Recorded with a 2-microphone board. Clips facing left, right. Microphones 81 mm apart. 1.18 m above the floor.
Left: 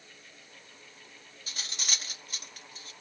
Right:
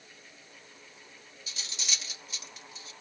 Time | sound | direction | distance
1.5 | cutlery clinking | 50° left (ahead or behind) | 0.5 m